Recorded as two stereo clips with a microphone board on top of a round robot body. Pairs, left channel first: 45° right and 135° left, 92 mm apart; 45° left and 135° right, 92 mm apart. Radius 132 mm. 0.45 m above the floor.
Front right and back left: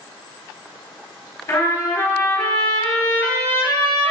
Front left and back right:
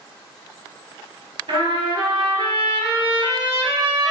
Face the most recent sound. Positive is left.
turn(degrees=-105)